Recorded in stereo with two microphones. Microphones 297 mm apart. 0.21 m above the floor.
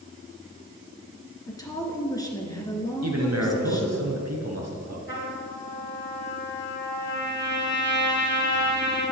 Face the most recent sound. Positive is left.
turn(degrees=40)  # may be behind; listen again after turning